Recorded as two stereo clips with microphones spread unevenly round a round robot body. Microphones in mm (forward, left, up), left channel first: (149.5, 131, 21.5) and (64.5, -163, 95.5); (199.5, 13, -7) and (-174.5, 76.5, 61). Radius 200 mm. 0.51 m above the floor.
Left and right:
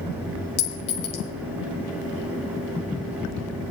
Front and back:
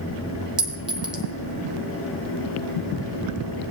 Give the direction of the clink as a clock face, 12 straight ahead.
9 o'clock.